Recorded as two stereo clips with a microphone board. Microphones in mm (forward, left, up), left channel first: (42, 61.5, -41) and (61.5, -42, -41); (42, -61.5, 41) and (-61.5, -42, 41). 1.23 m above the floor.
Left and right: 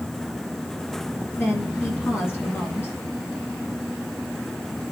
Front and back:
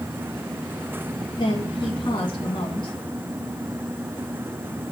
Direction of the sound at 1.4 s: 30° left.